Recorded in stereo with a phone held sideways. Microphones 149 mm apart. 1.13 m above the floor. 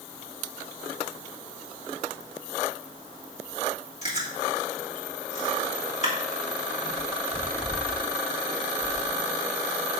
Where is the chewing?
50° left (ahead or behind), 2.5 m.